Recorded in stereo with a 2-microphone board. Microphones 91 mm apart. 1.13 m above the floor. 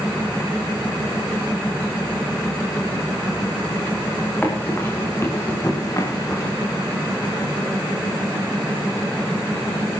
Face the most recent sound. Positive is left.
turn(degrees=35)  # may be behind; listen again after turning